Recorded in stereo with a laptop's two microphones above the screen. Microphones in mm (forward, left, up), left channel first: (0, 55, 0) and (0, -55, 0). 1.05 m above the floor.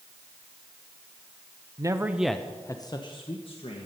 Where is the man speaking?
35° right (ahead or behind), 0.7 m; by 3.9 s 65° left (ahead or behind), 1.4 m.